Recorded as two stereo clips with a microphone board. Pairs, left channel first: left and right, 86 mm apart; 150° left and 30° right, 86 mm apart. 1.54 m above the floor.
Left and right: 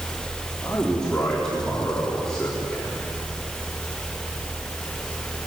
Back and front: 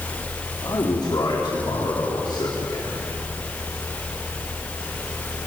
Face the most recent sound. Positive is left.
turn(degrees=175)